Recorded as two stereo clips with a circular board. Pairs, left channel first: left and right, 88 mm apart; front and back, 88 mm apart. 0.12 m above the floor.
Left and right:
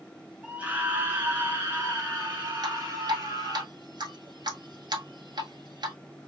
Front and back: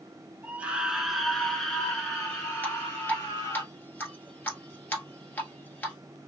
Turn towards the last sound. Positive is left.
turn(degrees=-65)